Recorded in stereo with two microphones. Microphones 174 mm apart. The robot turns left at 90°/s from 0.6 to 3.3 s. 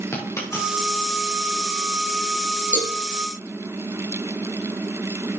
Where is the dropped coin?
15° left (ahead or behind), 5 m; by 1.1 s 55° left (ahead or behind), 5 m.